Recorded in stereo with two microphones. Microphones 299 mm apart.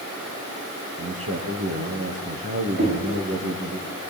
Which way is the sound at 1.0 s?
50° right (ahead or behind).